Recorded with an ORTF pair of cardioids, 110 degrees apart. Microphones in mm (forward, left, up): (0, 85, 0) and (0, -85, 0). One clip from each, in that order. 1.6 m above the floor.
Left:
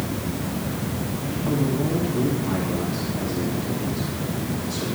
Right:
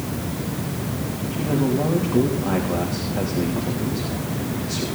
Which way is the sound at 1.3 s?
70° right.